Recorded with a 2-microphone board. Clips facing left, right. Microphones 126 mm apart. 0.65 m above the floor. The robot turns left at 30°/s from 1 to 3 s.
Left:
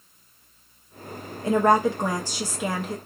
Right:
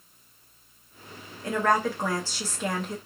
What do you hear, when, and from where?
1.4 s a woman speaking: 55° left, 0.6 m; by 3.0 s 10° left, 0.6 m